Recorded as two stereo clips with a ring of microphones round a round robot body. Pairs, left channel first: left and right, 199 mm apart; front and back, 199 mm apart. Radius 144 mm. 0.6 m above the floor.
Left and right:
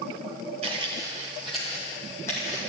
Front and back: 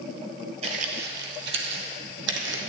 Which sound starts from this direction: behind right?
Footsteps, at 0.6 s.